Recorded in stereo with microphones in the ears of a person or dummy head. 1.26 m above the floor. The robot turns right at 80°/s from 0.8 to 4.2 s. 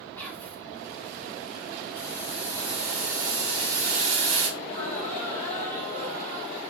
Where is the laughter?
15° left (ahead or behind), 4.5 m.